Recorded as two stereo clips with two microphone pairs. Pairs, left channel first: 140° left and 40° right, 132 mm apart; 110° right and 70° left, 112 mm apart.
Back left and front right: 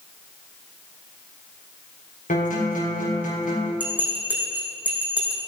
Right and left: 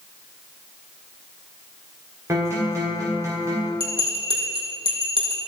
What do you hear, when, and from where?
2.3 s a guitar: 135° left, 4.5 m
3.8 s a bell: 35° left, 3.5 m